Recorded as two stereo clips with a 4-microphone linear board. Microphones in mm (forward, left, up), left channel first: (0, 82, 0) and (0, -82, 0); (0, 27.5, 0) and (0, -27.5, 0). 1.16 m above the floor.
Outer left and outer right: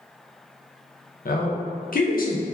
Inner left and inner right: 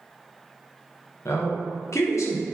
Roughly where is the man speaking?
Left.